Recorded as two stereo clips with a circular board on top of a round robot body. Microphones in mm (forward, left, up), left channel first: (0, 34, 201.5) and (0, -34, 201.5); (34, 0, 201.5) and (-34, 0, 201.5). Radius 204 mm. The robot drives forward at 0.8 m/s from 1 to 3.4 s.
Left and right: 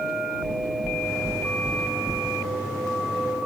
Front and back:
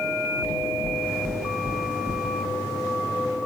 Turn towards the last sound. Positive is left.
turn(degrees=-175)